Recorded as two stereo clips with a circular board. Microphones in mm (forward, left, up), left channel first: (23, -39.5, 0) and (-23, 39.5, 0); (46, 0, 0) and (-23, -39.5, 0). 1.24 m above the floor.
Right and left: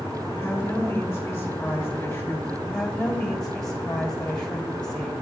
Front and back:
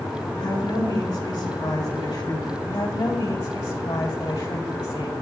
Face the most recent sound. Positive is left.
turn(degrees=25)